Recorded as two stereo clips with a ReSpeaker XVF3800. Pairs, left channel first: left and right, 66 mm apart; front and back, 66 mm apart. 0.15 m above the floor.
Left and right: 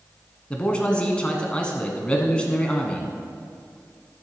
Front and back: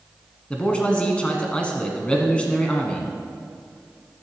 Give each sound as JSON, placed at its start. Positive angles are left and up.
{"t": 0.5, "sound": "a man speaking", "azimuth_deg": 45, "distance_m": 1.3}